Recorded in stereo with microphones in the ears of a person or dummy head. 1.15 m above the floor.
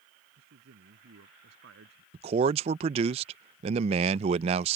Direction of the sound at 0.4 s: 70° right (ahead or behind).